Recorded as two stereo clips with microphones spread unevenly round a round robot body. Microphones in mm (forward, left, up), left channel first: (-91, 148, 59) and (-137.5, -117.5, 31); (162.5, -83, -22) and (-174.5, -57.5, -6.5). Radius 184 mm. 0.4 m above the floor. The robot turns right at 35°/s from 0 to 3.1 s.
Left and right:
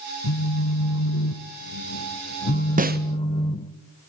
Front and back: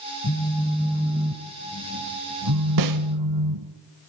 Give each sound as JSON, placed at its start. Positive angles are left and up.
{"t": 0.2, "sound": "a phone buzzing", "azimuth_deg": 50, "distance_m": 1.2}
{"t": 2.8, "sound": "a snare drum", "azimuth_deg": -160, "distance_m": 0.9}